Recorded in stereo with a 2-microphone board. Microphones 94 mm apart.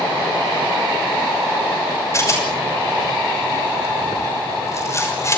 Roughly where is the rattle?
Left.